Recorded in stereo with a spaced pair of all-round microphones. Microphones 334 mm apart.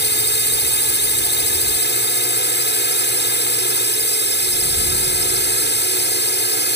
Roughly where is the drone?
Left.